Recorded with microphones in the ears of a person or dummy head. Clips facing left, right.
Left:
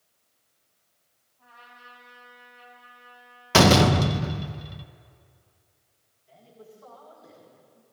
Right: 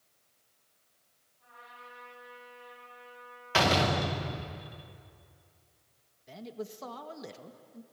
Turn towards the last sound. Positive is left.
turn(degrees=-85)